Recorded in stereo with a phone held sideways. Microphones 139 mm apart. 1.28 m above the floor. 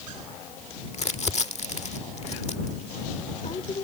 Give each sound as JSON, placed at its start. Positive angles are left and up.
{"t": 0.9, "sound": "crumpling", "side_deg": 50}